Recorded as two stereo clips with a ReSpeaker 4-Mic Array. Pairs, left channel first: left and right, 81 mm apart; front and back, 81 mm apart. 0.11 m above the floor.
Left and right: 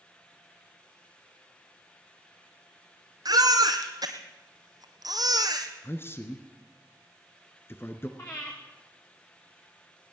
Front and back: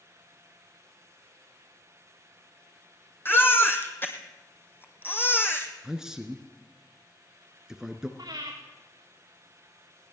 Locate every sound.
3.2 s a baby crying: 60° right, 2 m
5.8 s a man speaking: 105° left, 1.8 m
8.2 s breathing: 145° left, 5.5 m